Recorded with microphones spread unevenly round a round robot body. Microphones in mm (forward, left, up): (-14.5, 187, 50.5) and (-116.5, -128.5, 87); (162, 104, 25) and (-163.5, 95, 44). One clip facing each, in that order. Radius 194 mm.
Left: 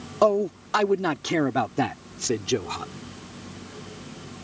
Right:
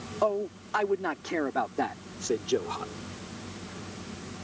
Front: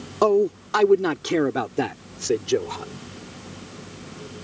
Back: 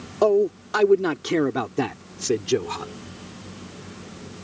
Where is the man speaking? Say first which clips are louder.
Left 7 dB, even; 75° left; by 2.9 s 115° left.